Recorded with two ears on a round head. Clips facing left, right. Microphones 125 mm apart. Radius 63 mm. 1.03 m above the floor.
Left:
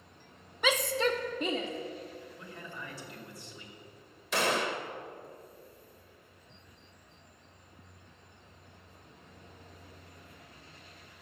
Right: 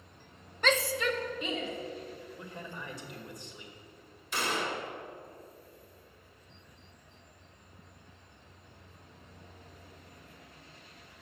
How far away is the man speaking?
About 2.5 m.